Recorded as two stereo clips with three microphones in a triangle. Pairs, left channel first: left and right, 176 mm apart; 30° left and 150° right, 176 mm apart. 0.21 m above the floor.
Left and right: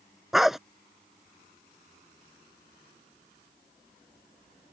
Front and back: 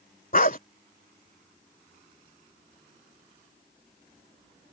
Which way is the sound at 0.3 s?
Straight ahead.